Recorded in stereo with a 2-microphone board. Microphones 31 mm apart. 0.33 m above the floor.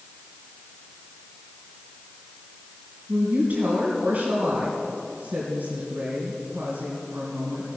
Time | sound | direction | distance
3.1 | a woman speaking | 55° right (ahead or behind) | 3 m